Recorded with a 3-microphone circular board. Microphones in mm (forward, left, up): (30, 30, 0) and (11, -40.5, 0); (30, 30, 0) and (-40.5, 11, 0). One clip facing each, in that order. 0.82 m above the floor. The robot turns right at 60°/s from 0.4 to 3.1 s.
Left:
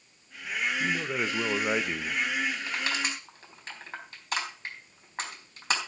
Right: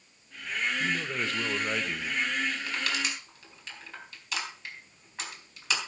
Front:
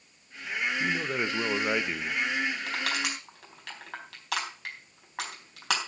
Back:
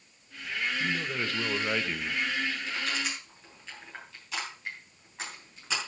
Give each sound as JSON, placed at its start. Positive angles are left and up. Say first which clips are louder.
{"t": 0.8, "sound": "a man speaking", "louder": "left 1 dB, front 2 dB", "azimuth_deg": 10, "distance_m": 0.6}
{"t": 2.7, "sound": "crushing", "louder": "left 1 dB, front 2 dB", "azimuth_deg": 0, "distance_m": 4.0}